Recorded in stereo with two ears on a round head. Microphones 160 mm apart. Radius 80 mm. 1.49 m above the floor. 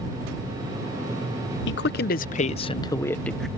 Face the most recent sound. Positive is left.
turn(degrees=0)  # may be behind; listen again after turning